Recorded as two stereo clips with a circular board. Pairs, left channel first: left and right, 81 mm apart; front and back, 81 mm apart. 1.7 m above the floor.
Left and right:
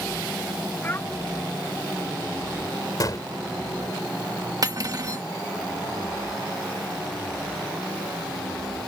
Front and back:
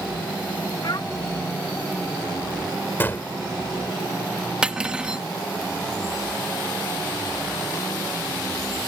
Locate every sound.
0.8 s a child speaking: 30° left
3.0 s a gunshot: 60° left
4.6 s cutlery clinking: 105° right